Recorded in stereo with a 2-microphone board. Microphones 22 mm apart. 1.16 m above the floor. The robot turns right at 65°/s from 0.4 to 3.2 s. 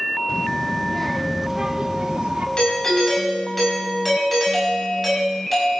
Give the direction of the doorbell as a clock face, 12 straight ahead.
7 o'clock.